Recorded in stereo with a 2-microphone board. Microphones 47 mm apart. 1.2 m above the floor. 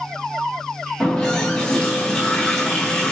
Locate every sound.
1.0 s a running tap: 15° left (ahead or behind), 0.8 m